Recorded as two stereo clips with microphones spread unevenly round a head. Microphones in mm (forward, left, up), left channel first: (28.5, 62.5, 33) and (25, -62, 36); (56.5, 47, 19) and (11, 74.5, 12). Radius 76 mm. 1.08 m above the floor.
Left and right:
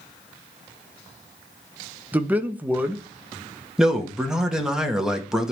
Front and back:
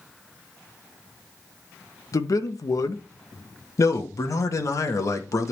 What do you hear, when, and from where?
2.1 s a man speaking: 15° right, 1.1 m
3.8 s a man speaking: 5° right, 1.5 m